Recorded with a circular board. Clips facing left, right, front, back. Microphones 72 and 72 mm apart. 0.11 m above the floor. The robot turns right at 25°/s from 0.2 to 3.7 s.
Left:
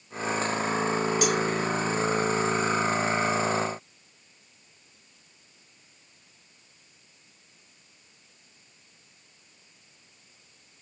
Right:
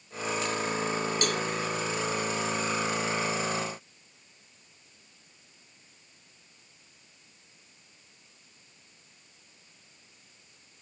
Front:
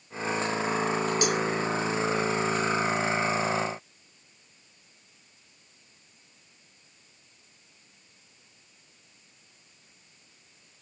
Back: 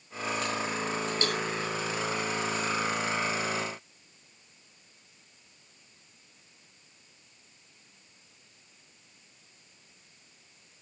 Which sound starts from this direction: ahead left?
A cowbell, at 1.2 s.